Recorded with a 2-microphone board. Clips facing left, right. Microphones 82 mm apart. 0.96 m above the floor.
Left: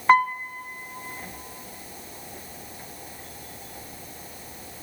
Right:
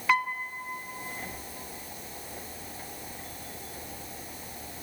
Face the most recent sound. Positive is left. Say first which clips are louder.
# left 8 dB
turn(degrees=40)  # may be behind; listen again after turning